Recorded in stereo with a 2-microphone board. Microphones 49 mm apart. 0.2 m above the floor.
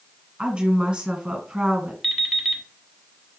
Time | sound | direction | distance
0.4 | a woman speaking | 15° right (ahead or behind) | 1.6 m
2.0 | an alarm clock | 5° left (ahead or behind) | 1.1 m